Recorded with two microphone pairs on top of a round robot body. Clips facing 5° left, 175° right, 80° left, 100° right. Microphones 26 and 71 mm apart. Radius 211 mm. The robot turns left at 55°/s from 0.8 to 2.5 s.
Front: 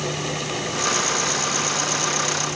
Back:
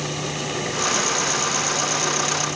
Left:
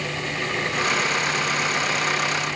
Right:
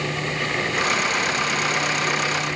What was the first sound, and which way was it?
Only background noise.